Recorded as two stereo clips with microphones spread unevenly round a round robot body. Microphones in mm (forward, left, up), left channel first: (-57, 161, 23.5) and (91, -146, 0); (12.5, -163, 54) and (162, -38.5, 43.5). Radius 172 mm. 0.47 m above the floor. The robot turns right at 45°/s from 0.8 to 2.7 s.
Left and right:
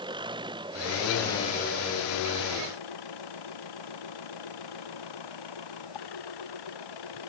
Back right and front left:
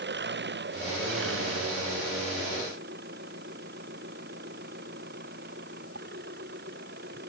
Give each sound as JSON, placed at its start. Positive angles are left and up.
{"t": 0.0, "sound": "an engine running", "azimuth_deg": 15}